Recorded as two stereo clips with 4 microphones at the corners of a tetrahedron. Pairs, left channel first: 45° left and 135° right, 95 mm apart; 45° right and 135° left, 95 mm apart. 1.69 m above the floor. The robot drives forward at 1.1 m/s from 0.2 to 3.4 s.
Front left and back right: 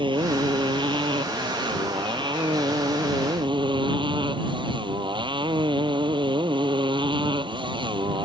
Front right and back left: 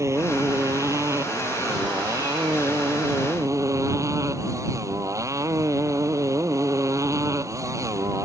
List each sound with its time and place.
0.0 s a motorcycle: 165° right; by 8.2 s 170° right